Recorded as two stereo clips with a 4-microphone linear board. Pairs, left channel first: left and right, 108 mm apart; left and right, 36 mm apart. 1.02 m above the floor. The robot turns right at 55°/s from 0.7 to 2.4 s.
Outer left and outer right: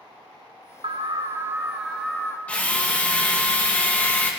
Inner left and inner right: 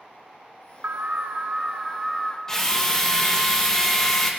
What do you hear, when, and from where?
0.8 s an alarm: 60° right, 0.9 m; by 2.4 s 25° left, 0.9 m
2.5 s a drill: 15° left (ahead or behind), 1.4 m